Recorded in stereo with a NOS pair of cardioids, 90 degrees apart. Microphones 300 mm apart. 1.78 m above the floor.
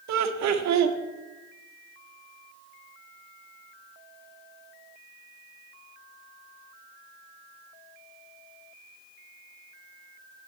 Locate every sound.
0.1 s laughter: 65° right, 1.1 m